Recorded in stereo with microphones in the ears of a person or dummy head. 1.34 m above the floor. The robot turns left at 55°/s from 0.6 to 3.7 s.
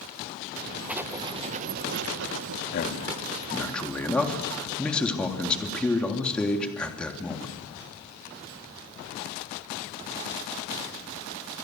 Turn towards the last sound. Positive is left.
turn(degrees=10)